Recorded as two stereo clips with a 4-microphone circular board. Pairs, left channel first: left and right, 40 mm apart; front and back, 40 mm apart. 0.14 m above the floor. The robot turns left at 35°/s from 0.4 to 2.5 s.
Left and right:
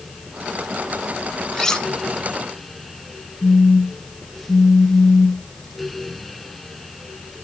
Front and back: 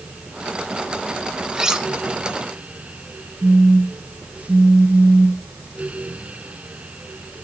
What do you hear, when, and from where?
1.5 s cutlery clinking: 145° left, 0.8 m; by 1.9 s 135° left, 0.8 m
3.4 s a phone buzzing: 135° left, 1.7 m